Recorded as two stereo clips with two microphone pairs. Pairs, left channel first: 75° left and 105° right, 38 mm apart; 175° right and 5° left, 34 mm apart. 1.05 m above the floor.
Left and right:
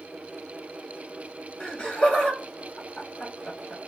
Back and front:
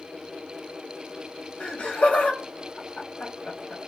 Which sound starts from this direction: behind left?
Laughter, at 1.6 s.